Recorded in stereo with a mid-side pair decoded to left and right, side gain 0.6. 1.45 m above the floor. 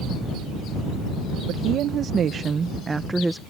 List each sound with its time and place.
1.5 s a woman speaking: 60° right; by 3.4 s 5° right